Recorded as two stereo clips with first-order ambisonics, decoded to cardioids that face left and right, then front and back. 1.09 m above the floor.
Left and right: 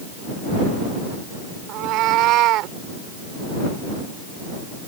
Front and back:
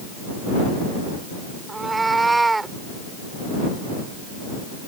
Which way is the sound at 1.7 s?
100° right.